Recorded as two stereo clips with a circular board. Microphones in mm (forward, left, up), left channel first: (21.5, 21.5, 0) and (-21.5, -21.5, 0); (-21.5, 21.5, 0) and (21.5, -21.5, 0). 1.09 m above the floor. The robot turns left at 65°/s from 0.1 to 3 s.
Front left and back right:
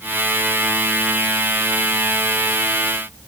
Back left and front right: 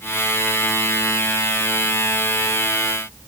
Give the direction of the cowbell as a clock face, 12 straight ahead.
I don't hear a cowbell.